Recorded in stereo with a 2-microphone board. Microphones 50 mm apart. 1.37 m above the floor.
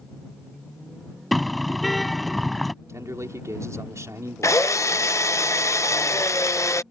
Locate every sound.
1.3 s a car horn: centre (ahead or behind)
2.9 s a man speaking: 85° right
4.4 s a drill: 80° left